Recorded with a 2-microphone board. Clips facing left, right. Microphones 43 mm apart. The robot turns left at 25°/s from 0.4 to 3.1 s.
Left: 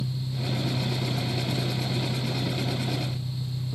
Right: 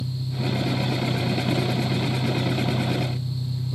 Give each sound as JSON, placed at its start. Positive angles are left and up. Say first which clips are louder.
{"t": 0.0, "sound": "an engine running", "louder": "right 3 dB", "azimuth_deg": -45, "distance_m": 4.5}